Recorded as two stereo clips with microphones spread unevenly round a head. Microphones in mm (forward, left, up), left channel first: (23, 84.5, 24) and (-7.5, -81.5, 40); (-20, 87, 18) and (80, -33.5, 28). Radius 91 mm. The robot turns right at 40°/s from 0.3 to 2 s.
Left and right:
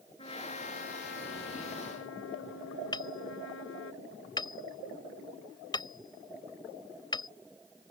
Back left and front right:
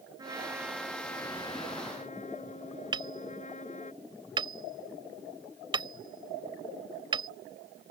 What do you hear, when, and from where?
0.2 s a trumpet: 20° left; by 3.9 s 85° left
2.9 s hammering: 10° left